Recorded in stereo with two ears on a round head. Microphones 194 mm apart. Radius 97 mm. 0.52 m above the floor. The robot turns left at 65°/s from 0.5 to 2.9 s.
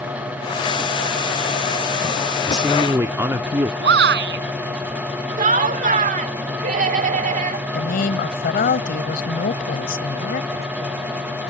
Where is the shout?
55° right (ahead or behind).